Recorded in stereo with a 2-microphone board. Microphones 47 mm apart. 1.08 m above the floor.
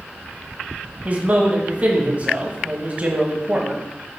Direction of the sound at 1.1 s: 30° right (ahead or behind).